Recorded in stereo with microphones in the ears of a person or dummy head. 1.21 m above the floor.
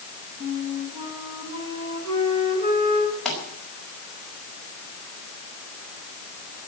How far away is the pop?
About 5.5 m.